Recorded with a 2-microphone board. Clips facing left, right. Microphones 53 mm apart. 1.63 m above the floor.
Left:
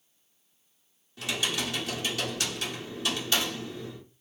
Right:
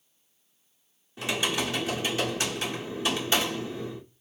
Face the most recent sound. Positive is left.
turn(degrees=-25)  # may be behind; listen again after turning